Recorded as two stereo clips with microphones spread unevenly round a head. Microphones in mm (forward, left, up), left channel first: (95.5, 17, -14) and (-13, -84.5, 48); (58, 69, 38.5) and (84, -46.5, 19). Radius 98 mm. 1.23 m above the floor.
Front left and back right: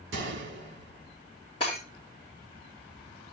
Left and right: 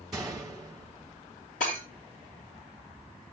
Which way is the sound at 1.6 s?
115° left.